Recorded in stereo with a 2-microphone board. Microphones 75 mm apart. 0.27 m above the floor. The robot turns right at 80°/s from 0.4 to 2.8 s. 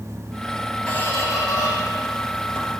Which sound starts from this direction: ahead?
A squeak, at 0.9 s.